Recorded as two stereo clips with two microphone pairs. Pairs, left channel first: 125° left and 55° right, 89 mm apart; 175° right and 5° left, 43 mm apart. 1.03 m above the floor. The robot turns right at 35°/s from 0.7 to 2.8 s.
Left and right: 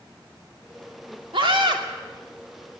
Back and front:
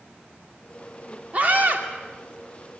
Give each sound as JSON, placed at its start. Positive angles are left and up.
{"t": 1.3, "sound": "a scream", "azimuth_deg": -50, "distance_m": 2.5}